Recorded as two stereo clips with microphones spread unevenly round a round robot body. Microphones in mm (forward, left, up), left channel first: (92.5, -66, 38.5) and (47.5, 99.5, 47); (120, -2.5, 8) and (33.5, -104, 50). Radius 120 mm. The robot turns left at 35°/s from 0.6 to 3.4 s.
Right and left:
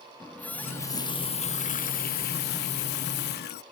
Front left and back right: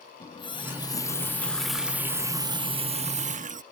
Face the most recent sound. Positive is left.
turn(degrees=-95)